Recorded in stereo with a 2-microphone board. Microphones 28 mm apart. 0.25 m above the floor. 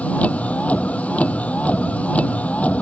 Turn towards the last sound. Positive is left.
turn(degrees=55)  # may be behind; listen again after turning